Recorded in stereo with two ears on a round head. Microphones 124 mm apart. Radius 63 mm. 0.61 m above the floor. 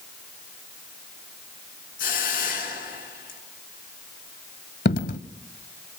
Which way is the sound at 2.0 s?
70° left (ahead or behind).